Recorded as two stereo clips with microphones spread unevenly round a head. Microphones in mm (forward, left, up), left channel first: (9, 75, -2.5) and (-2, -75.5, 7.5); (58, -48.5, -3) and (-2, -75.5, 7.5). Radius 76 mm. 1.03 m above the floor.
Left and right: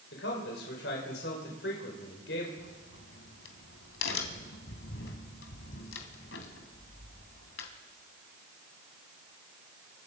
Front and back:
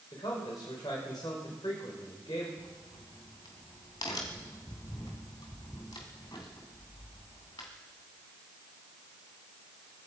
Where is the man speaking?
75° left, 4.5 m.